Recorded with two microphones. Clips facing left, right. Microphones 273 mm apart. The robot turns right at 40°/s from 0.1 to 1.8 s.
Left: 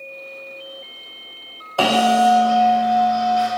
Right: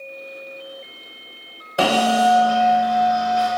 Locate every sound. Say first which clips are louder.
1.8 s a bell: left 1 dB; 20° right (ahead or behind), 0.6 m